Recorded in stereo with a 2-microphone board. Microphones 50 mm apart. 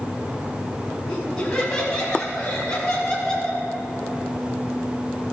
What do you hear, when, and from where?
1.1 s laughter: 20° left (ahead or behind), 6 m; by 3.6 s 10° left (ahead or behind), 4 m